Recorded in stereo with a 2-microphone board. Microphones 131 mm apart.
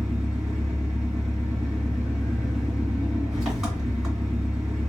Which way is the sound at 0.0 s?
5° right (ahead or behind).